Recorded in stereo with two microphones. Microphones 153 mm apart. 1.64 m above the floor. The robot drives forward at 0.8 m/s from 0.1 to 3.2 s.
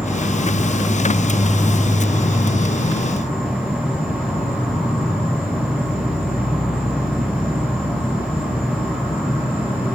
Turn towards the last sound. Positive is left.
turn(degrees=-10)  # may be behind; listen again after turning